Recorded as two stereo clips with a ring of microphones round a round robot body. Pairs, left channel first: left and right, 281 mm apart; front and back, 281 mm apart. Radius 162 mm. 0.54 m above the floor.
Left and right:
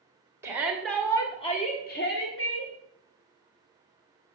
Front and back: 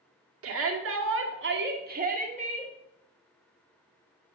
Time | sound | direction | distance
0.4 | a shout | 170° right | 1.7 m